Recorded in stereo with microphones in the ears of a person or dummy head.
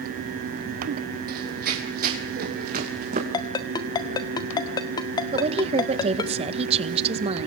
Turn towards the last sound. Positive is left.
turn(degrees=-35)  # may be behind; listen again after turning